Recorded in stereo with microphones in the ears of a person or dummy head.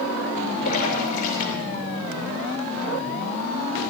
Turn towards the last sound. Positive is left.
turn(degrees=45)  # may be behind; listen again after turning